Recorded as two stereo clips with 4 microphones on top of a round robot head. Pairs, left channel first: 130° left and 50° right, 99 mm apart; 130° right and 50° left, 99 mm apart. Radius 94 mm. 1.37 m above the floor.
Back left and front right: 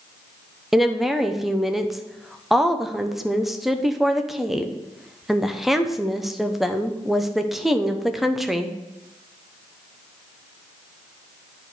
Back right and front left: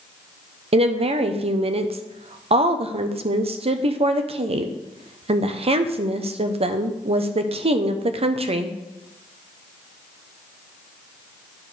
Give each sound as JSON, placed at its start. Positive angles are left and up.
{"t": 0.7, "sound": "a woman speaking", "azimuth_deg": 40, "distance_m": 1.0}